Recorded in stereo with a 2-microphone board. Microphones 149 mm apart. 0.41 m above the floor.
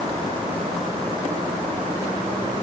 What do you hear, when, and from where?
Only background noise.